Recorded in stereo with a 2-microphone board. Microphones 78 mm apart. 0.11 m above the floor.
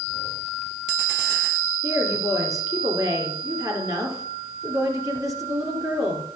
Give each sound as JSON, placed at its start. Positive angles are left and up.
{"t": 1.8, "sound": "a woman speaking", "side_deg": -45, "distance_m": 2.5}